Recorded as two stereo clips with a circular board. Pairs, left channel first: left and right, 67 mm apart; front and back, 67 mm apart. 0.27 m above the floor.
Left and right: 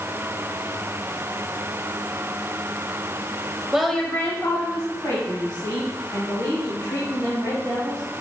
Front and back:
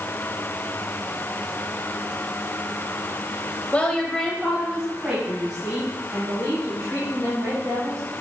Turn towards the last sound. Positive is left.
turn(degrees=115)